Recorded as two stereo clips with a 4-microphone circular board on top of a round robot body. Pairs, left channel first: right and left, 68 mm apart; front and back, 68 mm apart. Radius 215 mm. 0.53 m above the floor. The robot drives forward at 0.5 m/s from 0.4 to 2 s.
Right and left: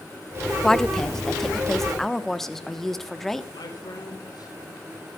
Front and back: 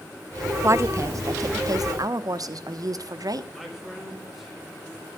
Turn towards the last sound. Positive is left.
turn(degrees=-95)